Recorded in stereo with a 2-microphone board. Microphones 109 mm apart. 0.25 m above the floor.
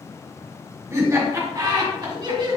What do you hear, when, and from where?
0.9 s laughter: 25° right (ahead or behind), 1.7 m; by 2.6 s 50° right (ahead or behind), 1.6 m